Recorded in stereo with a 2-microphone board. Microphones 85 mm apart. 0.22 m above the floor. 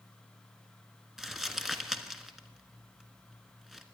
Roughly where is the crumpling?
Centre.